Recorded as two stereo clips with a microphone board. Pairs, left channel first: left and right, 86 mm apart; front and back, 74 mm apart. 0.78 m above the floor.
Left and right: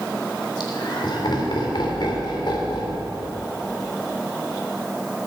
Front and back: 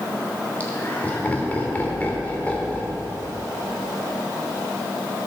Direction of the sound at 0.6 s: 65° left.